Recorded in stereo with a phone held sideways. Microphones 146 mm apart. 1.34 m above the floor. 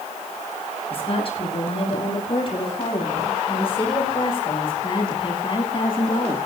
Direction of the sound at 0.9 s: 45° left (ahead or behind).